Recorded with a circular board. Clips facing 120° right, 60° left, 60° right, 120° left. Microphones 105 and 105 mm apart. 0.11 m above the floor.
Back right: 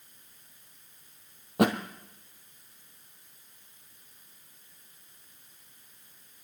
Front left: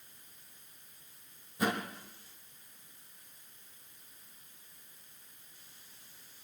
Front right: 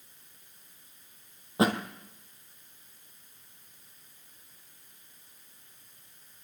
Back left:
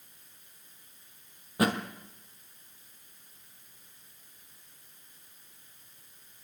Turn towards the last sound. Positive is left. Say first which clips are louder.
# back right 8 dB, front right 2 dB
turn(degrees=-125)